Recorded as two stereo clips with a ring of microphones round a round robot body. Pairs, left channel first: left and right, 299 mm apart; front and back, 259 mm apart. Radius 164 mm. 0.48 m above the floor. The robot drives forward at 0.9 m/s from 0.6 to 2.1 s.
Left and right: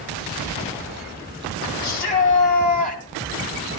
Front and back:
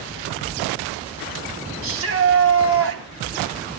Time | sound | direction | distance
1.8 | a shout | 150° left | 3.5 m